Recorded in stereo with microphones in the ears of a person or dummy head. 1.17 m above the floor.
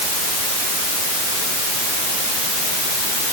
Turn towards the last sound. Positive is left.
No sound to turn to.